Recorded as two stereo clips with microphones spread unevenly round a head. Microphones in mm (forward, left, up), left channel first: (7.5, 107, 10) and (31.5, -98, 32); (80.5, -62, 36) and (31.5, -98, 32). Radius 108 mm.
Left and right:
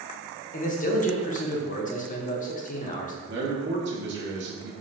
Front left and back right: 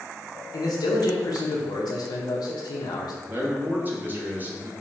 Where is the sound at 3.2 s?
100° right, 1.1 m.